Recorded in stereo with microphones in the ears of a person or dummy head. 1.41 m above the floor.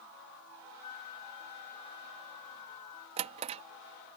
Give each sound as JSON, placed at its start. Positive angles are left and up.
{"t": 0.8, "sound": "a flute", "side_deg": 30}
{"t": 3.2, "sound": "a drawer", "side_deg": -30}